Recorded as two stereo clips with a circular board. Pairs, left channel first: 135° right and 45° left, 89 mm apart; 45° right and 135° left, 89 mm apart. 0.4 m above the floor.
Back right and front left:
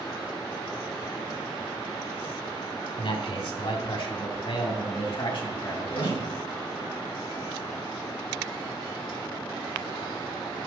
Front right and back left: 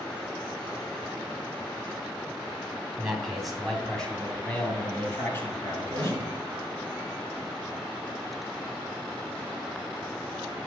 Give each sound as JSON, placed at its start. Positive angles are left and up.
{"t": 3.0, "sound": "a man speaking", "azimuth_deg": -140, "distance_m": 2.0}
{"t": 5.9, "sound": "a microwave", "azimuth_deg": -130, "distance_m": 5.0}